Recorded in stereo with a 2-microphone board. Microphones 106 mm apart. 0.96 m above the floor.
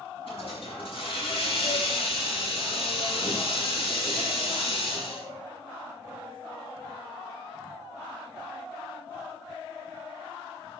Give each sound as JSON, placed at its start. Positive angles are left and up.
{"t": 0.3, "sound": "a hiss", "side_deg": 65, "distance_m": 5.5}